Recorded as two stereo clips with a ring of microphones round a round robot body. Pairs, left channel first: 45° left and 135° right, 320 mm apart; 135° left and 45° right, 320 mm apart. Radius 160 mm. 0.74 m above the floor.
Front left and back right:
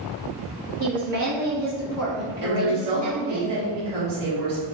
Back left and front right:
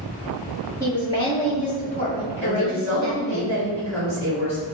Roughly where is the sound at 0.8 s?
Behind right.